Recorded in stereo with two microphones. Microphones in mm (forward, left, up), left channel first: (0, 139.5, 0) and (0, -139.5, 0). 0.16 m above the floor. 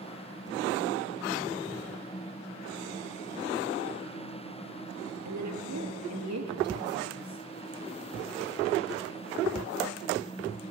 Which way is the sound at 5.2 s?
70° right (ahead or behind).